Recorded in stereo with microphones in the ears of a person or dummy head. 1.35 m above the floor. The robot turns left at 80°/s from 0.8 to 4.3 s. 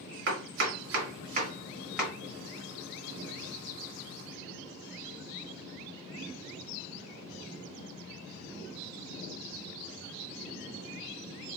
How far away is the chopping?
About 1.6 m.